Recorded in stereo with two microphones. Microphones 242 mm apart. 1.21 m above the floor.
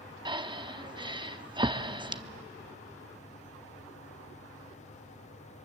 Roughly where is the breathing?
Centre.